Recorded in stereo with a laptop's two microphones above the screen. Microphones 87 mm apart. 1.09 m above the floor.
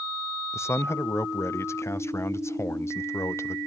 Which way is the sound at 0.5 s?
35° left (ahead or behind).